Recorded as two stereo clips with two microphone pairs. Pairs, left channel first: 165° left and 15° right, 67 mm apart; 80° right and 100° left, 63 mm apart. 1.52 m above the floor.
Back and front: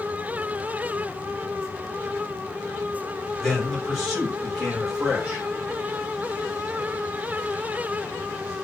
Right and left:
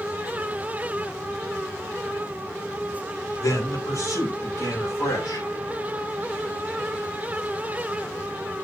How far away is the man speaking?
About 6 m.